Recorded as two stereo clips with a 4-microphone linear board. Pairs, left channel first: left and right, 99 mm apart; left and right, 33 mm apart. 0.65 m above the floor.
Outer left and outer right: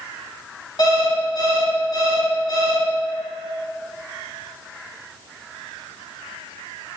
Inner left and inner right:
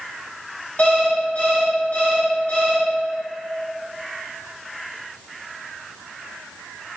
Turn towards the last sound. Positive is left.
turn(degrees=45)  # may be behind; listen again after turning